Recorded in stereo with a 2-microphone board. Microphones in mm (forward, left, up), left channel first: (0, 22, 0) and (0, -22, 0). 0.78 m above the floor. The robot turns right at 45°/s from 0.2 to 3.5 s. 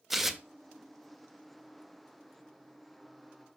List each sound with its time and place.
0.1 s tearing paper: 5° right (ahead or behind), 0.6 m; by 0.4 s 10° right (ahead or behind), 0.6 m